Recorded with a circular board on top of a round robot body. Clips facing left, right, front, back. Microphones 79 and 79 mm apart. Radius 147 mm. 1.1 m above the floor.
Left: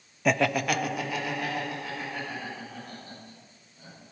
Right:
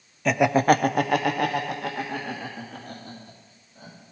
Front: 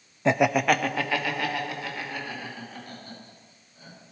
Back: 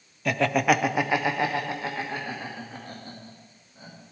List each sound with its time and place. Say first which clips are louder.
0.2 s laughter: right 6 dB, front 1 dB; 10° left, 0.5 m; by 4.1 s 120° right, 4 m